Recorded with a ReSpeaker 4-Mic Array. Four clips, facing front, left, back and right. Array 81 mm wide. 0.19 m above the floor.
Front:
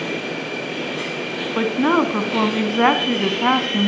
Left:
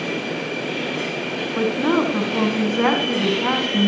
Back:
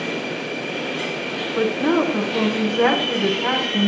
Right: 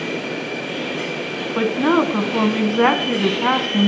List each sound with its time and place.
1.6 s a woman speaking: 30° right, 1.6 m